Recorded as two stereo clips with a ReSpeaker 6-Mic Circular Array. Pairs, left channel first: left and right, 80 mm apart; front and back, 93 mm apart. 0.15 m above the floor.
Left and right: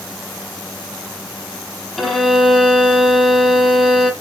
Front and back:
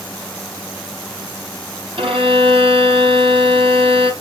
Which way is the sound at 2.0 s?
Straight behind.